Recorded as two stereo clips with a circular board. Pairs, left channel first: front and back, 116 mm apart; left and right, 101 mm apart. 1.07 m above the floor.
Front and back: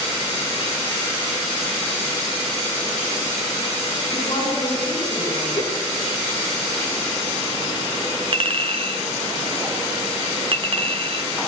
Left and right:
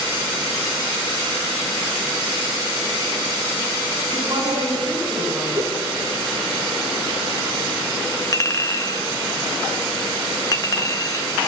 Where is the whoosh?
30° right, 3.5 m.